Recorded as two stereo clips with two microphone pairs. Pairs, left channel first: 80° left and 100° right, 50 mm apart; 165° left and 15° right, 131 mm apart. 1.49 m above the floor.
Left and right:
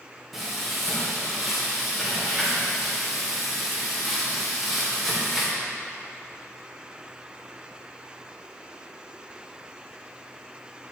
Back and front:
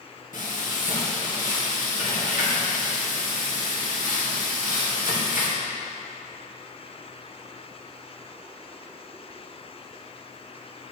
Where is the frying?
175° left, 2.5 m.